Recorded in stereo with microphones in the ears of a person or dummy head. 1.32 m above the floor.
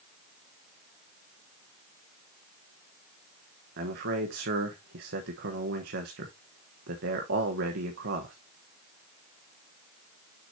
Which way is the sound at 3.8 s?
60° right (ahead or behind).